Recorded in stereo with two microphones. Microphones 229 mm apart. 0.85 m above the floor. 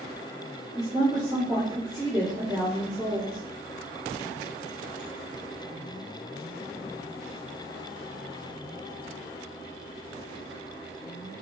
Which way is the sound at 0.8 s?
15° right (ahead or behind).